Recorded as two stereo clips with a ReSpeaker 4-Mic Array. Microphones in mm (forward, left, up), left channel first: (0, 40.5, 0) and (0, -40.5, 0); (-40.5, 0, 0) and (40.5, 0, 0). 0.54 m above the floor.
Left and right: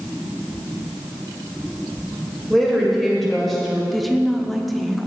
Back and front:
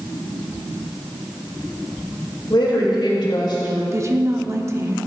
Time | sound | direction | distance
2.5 | a woman speaking | straight behind | 2.5 m
3.9 | a woman speaking | straight ahead | 0.7 m